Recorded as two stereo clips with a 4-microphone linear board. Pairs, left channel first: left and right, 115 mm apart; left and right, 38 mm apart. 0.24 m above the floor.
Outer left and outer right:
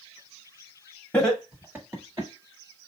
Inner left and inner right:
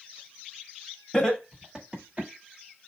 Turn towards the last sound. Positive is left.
turn(degrees=-35)  # may be behind; listen again after turning